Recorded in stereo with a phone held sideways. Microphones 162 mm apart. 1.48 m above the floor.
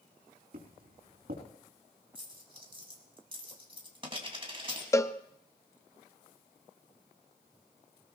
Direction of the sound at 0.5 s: 65° right (ahead or behind).